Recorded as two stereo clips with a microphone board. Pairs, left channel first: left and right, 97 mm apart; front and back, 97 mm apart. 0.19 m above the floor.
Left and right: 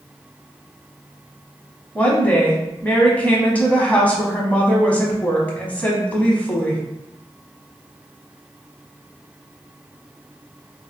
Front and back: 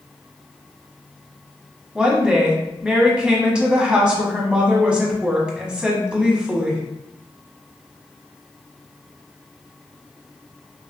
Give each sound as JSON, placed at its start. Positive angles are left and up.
{"t": 1.9, "sound": "a woman speaking", "azimuth_deg": 125, "distance_m": 1.0}